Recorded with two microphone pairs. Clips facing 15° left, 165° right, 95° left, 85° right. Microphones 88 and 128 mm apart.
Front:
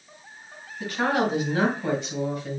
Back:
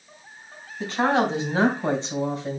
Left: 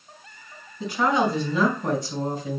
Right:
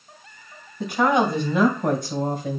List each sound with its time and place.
0.8 s a woman speaking: 110° right, 3.5 m; by 2.6 s 105° right, 2.5 m